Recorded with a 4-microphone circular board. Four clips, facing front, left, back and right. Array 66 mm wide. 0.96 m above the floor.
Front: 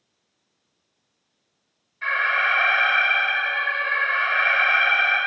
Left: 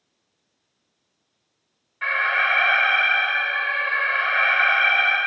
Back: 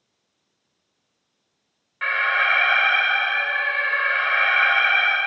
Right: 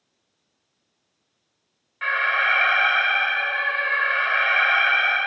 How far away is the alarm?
About 1.4 m.